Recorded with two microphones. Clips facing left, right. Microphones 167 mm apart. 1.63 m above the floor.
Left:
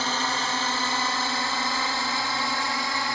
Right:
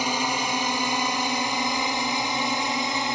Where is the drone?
15° right (ahead or behind); by 3.1 s 20° right (ahead or behind).